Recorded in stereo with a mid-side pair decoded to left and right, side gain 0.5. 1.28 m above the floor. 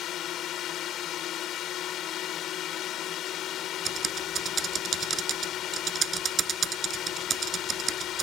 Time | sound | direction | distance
0.0 | a drone | 65° left | ?
3.9 | typing on a keyboard | 45° right | ?